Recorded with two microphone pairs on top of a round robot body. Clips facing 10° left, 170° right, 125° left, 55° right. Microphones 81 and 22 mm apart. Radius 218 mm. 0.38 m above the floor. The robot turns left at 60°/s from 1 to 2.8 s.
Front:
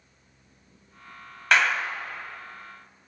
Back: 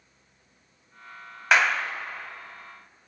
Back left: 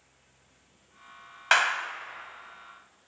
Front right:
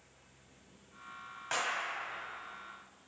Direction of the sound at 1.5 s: 105° left.